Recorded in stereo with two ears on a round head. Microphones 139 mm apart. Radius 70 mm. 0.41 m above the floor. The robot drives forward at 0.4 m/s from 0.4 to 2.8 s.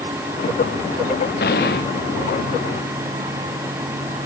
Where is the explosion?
75° left (ahead or behind).